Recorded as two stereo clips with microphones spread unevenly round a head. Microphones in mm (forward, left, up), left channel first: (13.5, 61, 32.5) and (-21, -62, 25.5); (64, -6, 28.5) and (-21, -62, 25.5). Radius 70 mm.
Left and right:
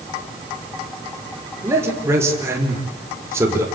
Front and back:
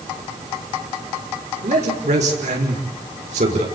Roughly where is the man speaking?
Behind.